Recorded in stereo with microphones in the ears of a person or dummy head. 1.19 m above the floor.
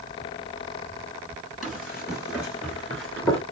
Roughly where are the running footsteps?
Centre.